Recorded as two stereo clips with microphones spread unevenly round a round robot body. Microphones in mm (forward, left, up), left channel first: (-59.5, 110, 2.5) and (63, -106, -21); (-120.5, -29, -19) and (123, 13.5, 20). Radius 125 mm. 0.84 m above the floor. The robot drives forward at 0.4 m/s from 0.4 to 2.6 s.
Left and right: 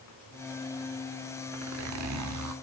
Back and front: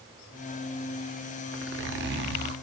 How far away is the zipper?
About 1.5 m.